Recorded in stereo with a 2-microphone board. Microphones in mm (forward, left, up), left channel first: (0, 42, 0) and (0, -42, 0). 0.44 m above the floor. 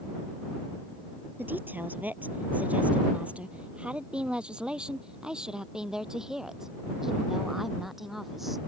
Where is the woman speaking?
20° right (ahead or behind); by 8.6 s centre (ahead or behind).